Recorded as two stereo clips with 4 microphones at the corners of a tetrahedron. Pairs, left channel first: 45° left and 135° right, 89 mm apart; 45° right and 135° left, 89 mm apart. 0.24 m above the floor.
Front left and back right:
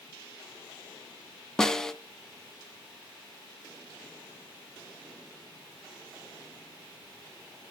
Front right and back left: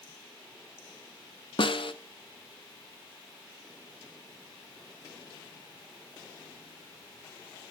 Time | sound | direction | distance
1.6 | a snare drum | 40° right | 0.5 m